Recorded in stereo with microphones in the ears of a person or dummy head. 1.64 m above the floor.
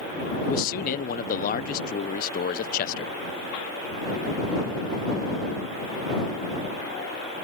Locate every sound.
0.4 s a man speaking: 50° left (ahead or behind)